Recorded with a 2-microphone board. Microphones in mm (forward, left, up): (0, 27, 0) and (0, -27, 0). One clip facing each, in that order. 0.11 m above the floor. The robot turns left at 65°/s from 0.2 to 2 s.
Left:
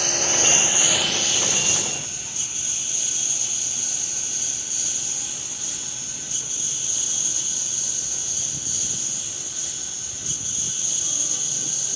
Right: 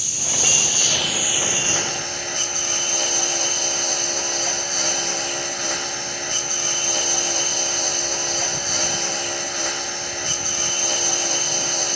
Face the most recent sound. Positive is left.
turn(degrees=-60)